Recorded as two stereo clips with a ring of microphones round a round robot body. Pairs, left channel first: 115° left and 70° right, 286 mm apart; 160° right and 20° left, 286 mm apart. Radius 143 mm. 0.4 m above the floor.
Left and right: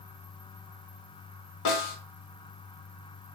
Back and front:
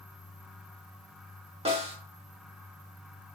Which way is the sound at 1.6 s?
90° left.